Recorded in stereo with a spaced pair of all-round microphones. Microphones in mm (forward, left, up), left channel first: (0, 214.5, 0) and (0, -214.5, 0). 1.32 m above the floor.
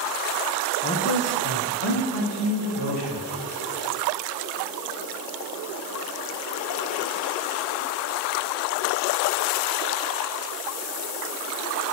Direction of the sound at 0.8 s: 20° left (ahead or behind).